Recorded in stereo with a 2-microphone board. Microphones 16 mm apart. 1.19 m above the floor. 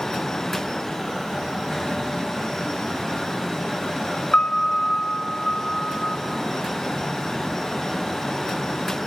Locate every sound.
4.3 s a piano: 75° left (ahead or behind), 5 m